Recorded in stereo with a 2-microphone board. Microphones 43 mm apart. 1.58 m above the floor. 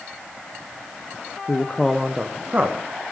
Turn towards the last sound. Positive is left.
turn(degrees=-50)  # may be behind; listen again after turning